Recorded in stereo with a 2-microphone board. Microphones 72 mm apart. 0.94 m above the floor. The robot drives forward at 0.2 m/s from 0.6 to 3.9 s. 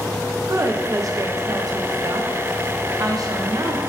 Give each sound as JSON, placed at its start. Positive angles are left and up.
{"t": 0.5, "sound": "a woman speaking", "side_deg": -45, "distance_m": 0.6}